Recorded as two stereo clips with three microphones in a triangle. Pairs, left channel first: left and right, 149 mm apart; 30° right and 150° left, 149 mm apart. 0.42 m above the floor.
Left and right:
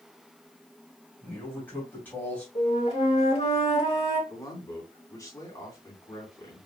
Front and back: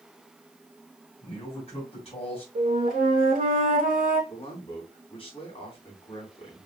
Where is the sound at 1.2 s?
15° left, 2.5 m.